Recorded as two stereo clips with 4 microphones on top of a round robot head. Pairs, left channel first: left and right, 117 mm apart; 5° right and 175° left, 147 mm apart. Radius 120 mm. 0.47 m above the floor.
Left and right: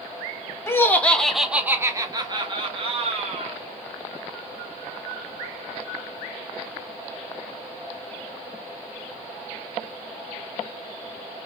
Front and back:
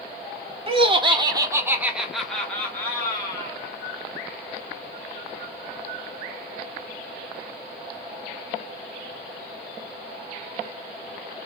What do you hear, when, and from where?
0.7 s laughter: 150° left, 1.6 m; by 3.6 s 70° right, 2.5 m